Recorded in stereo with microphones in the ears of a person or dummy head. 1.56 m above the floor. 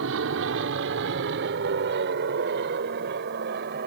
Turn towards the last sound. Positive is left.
turn(degrees=-50)  # may be behind; listen again after turning